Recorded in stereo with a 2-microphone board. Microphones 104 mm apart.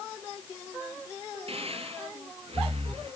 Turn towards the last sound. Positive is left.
turn(degrees=-65)  # may be behind; listen again after turning